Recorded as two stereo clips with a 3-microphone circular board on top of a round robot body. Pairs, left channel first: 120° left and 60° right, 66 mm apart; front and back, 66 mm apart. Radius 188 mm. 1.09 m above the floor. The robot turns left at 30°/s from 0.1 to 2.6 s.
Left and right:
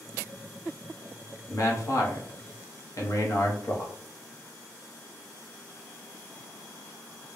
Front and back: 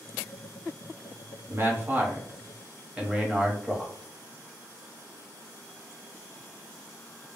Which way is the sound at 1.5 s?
145° left.